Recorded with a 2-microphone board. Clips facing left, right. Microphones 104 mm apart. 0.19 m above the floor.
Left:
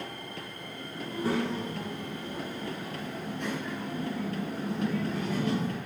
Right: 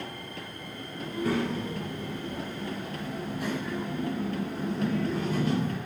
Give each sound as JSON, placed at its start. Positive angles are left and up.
{"t": 1.0, "sound": "a child speaking", "side_deg": 35, "distance_m": 1.7}